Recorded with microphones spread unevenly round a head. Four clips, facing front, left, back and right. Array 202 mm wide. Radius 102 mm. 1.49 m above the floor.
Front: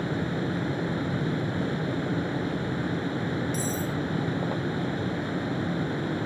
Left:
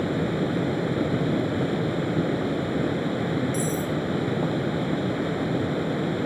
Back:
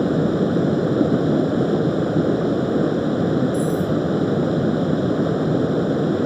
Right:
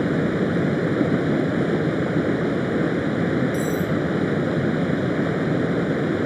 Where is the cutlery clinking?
15° right.